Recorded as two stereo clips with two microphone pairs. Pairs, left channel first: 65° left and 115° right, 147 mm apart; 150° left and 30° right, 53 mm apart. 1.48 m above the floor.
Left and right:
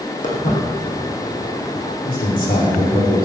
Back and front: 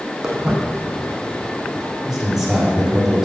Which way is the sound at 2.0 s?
50° left.